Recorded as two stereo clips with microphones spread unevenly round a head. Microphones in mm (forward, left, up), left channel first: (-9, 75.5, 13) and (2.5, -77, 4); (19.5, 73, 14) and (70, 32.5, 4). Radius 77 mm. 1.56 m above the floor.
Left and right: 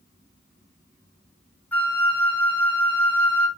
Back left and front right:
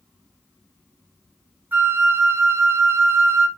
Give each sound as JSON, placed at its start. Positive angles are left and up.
{"t": 1.7, "sound": "a flute", "azimuth_deg": 20, "distance_m": 1.9}